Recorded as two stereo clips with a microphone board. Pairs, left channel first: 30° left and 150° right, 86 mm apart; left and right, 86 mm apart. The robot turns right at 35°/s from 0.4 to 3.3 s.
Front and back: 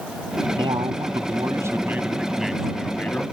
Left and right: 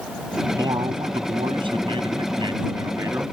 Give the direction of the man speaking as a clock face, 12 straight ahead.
4 o'clock.